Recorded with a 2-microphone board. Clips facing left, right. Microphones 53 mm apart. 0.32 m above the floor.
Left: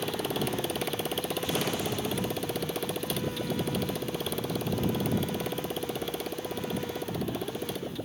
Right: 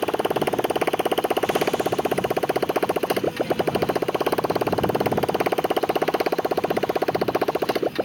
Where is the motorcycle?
45° right (ahead or behind); by 8.1 s 65° right (ahead or behind).